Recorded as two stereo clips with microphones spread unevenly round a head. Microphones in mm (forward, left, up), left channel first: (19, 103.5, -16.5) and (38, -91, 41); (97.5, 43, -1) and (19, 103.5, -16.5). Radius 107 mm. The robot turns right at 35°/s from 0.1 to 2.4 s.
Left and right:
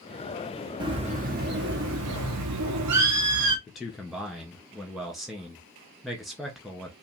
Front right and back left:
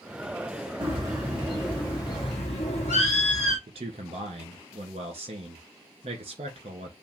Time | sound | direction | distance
0.8 | a bird | 155° right | 0.8 m
3.7 | a man speaking | straight behind | 1.2 m